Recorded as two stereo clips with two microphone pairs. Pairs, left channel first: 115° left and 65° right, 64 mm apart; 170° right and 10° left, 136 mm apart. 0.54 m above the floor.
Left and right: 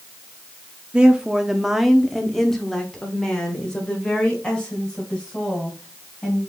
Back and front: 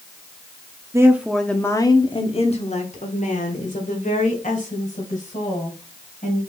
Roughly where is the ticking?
No ticking in this recording.